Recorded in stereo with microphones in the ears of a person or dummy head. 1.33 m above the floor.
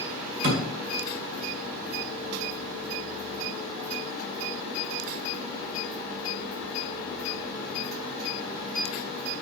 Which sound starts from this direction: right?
A thud, at 0.4 s.